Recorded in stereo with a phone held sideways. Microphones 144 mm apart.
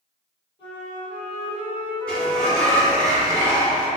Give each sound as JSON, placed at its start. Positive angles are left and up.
{"t": 0.6, "sound": "a flute", "side_deg": 35, "distance_m": 1.7}
{"t": 2.1, "sound": "a sliding door", "side_deg": 5, "distance_m": 0.9}